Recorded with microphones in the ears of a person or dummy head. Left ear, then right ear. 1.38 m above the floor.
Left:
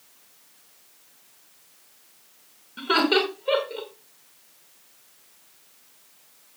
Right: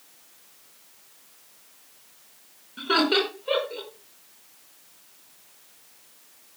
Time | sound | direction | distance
2.8 | laughter | 20° left (ahead or behind) | 5.5 m